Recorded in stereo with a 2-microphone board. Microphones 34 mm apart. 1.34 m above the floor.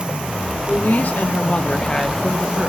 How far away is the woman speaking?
About 1.1 m.